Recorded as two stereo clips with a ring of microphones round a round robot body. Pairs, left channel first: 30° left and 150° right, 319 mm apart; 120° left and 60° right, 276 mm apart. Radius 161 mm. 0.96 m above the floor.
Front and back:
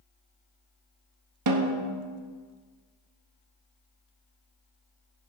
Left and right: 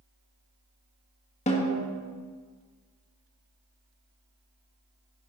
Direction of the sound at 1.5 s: 175° right.